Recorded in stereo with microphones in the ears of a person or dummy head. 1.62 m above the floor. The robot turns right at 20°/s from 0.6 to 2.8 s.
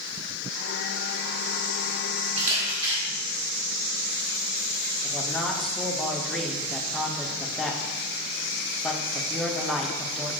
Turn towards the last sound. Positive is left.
turn(degrees=5)  # may be behind; listen again after turning